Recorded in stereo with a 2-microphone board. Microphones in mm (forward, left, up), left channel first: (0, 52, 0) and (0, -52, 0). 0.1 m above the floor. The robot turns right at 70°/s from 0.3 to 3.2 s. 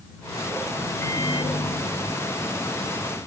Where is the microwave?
30° left; by 3.2 s straight behind.